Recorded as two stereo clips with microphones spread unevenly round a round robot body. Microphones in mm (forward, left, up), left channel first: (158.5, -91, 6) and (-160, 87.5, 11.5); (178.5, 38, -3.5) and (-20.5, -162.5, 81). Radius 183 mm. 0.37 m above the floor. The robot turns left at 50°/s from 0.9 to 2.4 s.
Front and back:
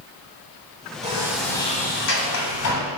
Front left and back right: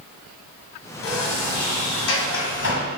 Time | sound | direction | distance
1.0 | a sliding door | 80° left | 1.5 m